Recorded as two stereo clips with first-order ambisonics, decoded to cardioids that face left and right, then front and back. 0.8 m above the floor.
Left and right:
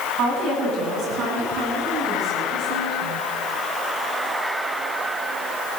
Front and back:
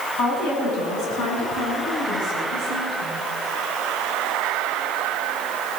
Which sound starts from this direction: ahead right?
A woman speaking, at 0.2 s.